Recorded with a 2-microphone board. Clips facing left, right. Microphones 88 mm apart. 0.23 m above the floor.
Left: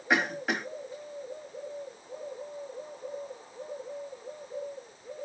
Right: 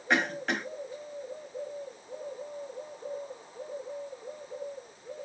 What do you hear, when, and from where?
0.1 s a cough: 5° left (ahead or behind), 0.9 m